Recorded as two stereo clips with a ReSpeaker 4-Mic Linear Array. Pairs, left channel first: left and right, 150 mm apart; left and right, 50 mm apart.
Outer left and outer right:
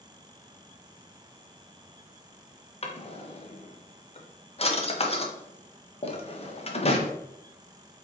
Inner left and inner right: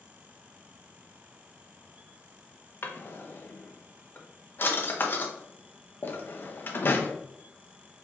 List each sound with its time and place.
2.8 s a drawer: 45° left (ahead or behind), 0.6 m